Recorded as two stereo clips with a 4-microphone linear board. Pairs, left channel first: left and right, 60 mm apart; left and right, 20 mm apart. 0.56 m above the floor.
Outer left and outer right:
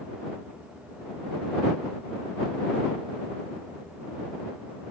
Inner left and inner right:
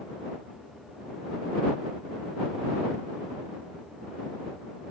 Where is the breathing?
No breathing in this recording.